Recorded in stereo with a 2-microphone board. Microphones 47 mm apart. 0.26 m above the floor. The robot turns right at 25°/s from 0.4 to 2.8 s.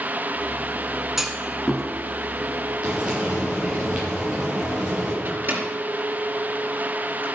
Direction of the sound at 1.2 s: 5° right (ahead or behind).